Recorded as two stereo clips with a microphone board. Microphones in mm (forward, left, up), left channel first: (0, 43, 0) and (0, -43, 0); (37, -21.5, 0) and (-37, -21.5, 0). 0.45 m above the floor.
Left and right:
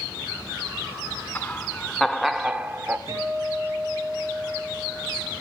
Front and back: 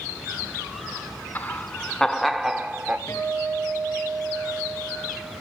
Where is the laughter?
35° left, 1.3 m; by 3.0 s 130° right, 1.2 m.